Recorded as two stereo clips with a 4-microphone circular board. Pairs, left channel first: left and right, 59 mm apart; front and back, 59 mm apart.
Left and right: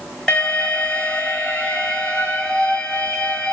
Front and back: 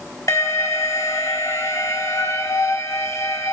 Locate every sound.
0.3 s an alarm: 10° left, 3.5 m